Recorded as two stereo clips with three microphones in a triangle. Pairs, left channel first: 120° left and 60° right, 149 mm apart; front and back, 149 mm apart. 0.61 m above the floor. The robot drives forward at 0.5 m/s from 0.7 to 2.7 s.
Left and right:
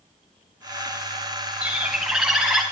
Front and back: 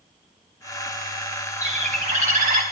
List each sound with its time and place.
1.6 s a bird: 140° right, 1.8 m; by 2.6 s 150° right, 2 m